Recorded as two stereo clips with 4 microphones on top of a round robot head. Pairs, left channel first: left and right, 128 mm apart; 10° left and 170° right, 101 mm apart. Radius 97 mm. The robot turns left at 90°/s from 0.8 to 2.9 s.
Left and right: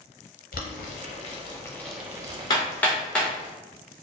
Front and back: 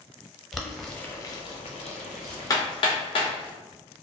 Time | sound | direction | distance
0.5 | boiling | 100° left | 0.6 m
2.5 | hammering | 50° left | 0.8 m